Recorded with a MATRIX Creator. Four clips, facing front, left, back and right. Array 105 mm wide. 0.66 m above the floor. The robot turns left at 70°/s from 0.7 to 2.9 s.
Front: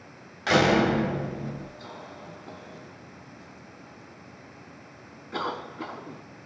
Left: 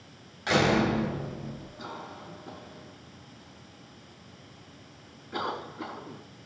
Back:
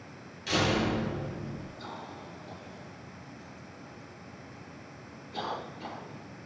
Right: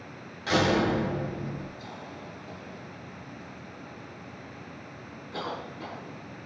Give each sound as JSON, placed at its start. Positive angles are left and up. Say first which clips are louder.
{"t": 0.5, "sound": "a door slam", "louder": "even, front 7 dB", "azimuth_deg": 15, "distance_m": 3.0}
{"t": 1.8, "sound": "a cough", "louder": "even, even", "azimuth_deg": 95, "distance_m": 5.0}